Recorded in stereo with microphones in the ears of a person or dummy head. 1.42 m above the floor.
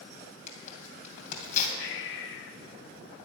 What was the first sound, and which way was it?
Tearing paper, 45° left (ahead or behind).